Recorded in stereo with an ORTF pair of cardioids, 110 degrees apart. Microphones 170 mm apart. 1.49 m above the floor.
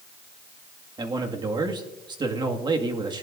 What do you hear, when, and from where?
1.0 s a man speaking: 25° right, 2 m